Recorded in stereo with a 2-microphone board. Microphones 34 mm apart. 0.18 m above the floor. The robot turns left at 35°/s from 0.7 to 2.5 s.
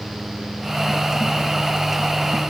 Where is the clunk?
No clunk in this recording.